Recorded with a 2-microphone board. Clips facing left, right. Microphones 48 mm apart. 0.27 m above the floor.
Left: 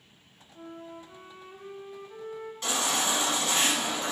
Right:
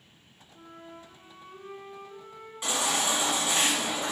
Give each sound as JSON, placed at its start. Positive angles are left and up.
{"t": 0.5, "sound": "a flute", "side_deg": 25, "distance_m": 0.8}
{"t": 2.6, "sound": "a baby crying", "side_deg": -15, "distance_m": 1.2}